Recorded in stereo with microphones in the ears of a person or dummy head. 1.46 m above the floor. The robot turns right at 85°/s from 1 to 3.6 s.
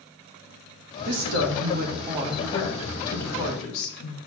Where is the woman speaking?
120° right, 1.3 m; by 4.2 s 100° left, 1.3 m.